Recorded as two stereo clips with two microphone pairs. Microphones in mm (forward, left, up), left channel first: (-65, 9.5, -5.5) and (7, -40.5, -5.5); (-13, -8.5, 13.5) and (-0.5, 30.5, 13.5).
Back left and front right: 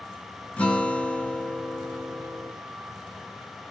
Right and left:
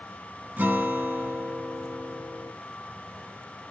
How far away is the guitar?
About 0.9 m.